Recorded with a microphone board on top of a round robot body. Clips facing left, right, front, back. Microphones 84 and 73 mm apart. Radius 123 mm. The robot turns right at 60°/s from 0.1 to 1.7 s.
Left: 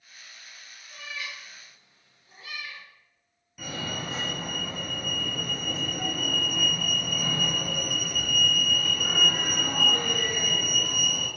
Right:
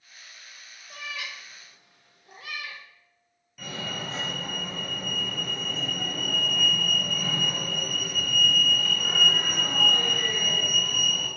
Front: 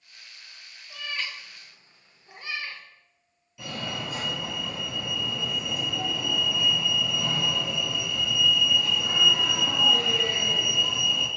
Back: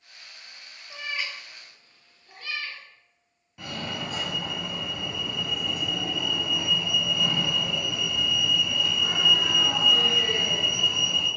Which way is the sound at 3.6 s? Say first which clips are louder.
Left 1 dB, even; 170° left.